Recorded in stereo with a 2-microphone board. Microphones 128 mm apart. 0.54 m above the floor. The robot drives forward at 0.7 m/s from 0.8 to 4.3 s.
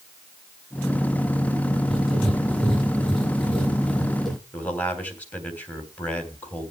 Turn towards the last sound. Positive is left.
turn(degrees=15)  # may be behind; listen again after turning